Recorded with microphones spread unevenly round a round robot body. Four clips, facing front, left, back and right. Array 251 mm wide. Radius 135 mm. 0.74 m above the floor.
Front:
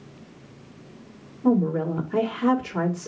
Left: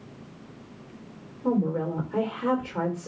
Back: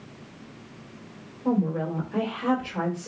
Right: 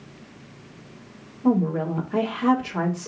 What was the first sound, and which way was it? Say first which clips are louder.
A woman speaking: right 4 dB, front 4 dB; 15° right.